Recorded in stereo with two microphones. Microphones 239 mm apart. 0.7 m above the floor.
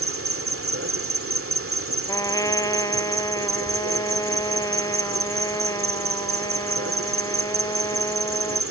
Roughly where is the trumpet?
Centre.